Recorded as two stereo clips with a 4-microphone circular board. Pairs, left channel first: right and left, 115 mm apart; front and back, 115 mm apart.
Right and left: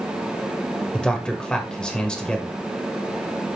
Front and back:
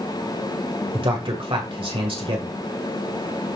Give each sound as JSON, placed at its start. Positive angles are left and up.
{"t": 0.9, "sound": "a man speaking", "azimuth_deg": -170, "distance_m": 1.7}